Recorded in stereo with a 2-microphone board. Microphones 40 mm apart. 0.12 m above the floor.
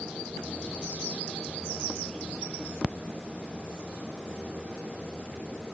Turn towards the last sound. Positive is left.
No sound to turn to.